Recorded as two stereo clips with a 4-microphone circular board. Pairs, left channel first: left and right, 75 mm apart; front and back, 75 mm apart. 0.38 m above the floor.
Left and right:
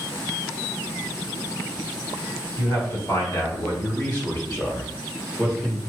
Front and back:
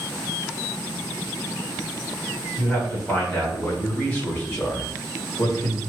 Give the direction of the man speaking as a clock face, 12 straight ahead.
10 o'clock.